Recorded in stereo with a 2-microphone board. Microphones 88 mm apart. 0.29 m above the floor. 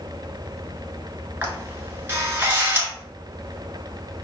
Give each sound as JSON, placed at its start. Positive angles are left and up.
{"t": 1.4, "sound": "a camera shutter", "side_deg": -25, "distance_m": 0.9}